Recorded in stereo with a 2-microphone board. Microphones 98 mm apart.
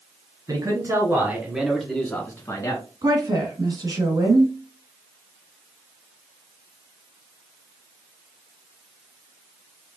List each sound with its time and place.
0.5 s a man speaking: 40° right (ahead or behind), 1.6 m; by 2.8 s 40° left (ahead or behind), 1.6 m
3.0 s a woman speaking: 40° right (ahead or behind), 1.5 m